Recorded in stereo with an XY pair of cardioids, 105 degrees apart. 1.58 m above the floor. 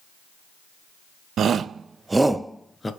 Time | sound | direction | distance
1.4 | a shout | 60° right | 0.8 m